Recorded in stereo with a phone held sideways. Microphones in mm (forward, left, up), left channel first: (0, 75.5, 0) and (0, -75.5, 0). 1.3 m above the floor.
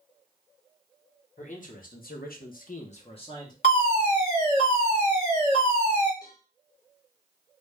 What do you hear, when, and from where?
1.4 s a man speaking: 55° left (ahead or behind), 1.4 m; by 3.5 s 25° left (ahead or behind), 1.3 m
3.6 s a fire alarm: 50° left (ahead or behind), 2.5 m
6.2 s a cowbell: 25° left (ahead or behind), 1.1 m